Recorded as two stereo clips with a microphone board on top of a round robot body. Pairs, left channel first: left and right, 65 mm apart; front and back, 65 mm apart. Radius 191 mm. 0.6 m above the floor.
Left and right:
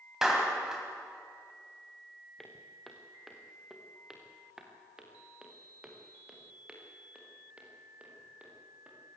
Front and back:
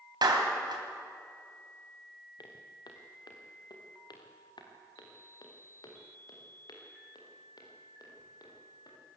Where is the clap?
175° right, 3.5 m.